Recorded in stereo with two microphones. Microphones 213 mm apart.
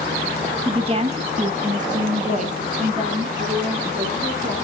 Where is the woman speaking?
25° right (ahead or behind), 1.4 m; by 4.5 s 35° right (ahead or behind), 4.5 m.